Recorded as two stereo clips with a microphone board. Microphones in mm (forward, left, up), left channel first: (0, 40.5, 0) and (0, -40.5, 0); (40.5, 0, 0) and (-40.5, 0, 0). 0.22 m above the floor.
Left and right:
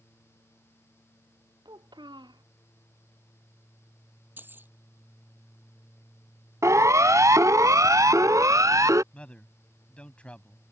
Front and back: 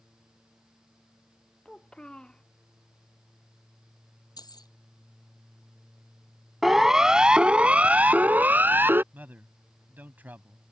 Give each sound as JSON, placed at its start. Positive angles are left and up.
{"t": 1.6, "sound": "a child speaking", "azimuth_deg": -80}
{"t": 4.4, "sound": "keys jangling", "azimuth_deg": -25}
{"t": 6.6, "sound": "a siren", "azimuth_deg": -95}
{"t": 9.1, "sound": "a man speaking", "azimuth_deg": 145}